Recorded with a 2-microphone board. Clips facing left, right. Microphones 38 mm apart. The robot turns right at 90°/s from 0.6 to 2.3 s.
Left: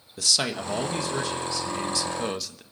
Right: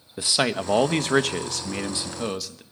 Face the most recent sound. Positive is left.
turn(degrees=-5)